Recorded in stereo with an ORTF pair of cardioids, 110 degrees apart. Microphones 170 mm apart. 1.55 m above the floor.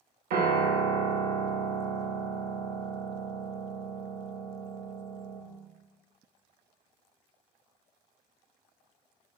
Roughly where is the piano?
Ahead right.